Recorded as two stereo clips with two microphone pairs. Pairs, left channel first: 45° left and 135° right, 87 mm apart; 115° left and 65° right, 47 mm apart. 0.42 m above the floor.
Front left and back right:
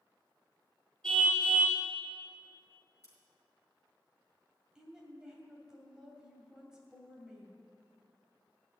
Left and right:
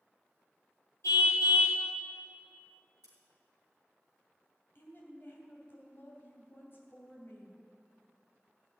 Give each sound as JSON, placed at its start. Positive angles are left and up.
{"t": 1.0, "sound": "a car horn", "azimuth_deg": 130, "distance_m": 4.5}
{"t": 3.0, "sound": "scissors", "azimuth_deg": 105, "distance_m": 5.0}
{"t": 4.8, "sound": "a woman speaking", "azimuth_deg": 145, "distance_m": 2.5}